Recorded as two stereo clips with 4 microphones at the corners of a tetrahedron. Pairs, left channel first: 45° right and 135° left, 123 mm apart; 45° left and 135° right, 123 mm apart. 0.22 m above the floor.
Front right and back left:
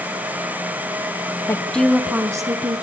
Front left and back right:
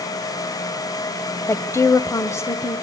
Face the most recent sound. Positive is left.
turn(degrees=110)